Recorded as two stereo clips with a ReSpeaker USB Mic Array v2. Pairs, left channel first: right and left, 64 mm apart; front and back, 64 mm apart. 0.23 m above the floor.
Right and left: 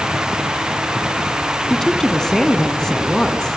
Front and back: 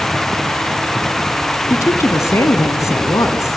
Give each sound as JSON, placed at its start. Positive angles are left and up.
{"t": 1.7, "sound": "a woman speaking", "azimuth_deg": -5, "distance_m": 1.7}